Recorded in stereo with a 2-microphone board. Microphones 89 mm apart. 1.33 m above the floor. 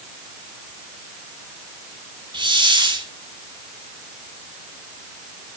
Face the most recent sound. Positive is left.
turn(degrees=-60)  # may be behind; listen again after turning